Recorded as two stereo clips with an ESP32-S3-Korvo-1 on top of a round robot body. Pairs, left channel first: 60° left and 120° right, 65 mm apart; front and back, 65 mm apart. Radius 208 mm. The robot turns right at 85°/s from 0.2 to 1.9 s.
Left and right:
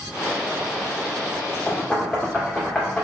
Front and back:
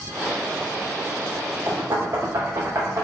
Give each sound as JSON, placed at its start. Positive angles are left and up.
{"t": 1.7, "sound": "knocking", "azimuth_deg": 115, "distance_m": 1.8}